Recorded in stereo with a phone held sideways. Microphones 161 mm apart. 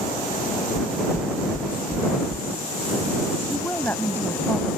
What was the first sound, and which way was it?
Knocking, 15° right (ahead or behind).